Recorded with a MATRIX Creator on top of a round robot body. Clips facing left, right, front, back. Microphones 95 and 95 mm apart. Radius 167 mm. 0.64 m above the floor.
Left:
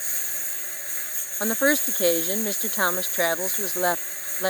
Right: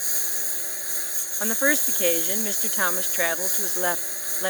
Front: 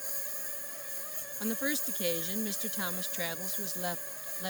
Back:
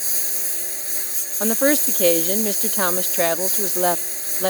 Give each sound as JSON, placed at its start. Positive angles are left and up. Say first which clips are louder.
{"t": 0.0, "sound": "a lawn mower", "louder": "right 2 dB, back 8 dB", "azimuth_deg": -165}
{"t": 1.4, "sound": "a woman speaking", "louder": "left 2 dB, back 15 dB", "azimuth_deg": 165}